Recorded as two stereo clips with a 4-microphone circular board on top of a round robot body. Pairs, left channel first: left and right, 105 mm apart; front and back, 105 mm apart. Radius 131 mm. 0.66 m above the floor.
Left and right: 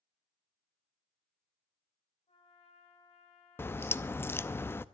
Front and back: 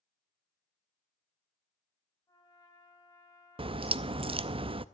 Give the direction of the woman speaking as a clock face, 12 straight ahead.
No woman speaking in this recording.